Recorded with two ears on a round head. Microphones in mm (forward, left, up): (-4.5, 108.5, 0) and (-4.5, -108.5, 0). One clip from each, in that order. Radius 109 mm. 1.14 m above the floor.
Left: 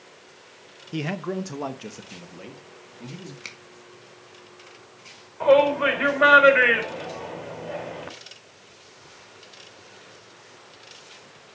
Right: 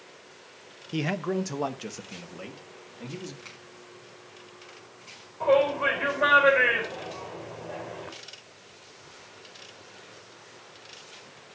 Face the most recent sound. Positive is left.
turn(degrees=45)  # may be behind; listen again after turning